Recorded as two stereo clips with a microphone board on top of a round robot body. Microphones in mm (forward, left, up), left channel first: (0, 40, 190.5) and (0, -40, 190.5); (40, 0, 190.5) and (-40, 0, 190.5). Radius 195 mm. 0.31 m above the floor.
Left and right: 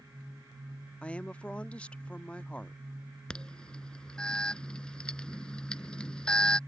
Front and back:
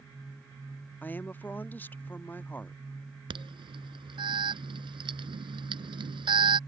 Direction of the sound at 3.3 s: 170° left.